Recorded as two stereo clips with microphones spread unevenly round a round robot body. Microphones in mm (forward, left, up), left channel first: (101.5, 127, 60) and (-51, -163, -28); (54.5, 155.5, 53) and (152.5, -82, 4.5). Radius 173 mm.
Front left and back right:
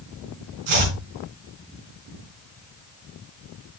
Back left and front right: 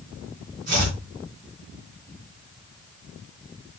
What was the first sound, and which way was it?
Chopping, 135° right.